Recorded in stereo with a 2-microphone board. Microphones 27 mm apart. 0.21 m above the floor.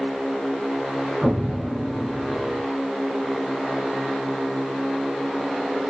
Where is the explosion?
25° right (ahead or behind), 1.1 m.